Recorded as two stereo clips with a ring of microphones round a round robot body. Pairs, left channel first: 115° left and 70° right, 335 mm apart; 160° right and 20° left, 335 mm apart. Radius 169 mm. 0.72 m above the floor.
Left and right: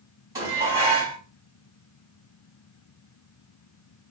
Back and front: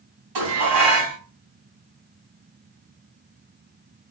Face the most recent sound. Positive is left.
turn(degrees=15)